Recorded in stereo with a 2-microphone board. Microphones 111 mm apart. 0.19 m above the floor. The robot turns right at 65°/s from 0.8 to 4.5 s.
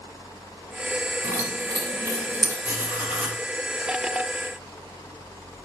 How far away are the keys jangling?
About 1.3 m.